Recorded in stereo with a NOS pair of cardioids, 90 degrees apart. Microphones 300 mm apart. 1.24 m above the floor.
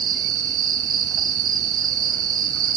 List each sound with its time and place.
0.0 s an insect: 45° right, 0.9 m